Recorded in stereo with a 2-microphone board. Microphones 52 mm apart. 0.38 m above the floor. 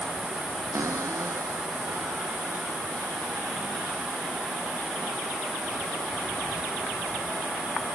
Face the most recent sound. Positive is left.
turn(degrees=-70)  # may be behind; listen again after turning